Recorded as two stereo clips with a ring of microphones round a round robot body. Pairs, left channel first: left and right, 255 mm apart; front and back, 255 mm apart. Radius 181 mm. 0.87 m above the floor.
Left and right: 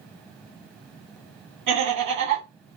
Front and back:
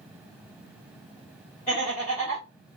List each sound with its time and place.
1.7 s laughter: 70° right, 1.4 m